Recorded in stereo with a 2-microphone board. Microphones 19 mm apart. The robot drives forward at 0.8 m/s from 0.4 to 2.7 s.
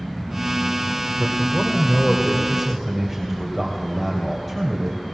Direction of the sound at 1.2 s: 15° right (ahead or behind).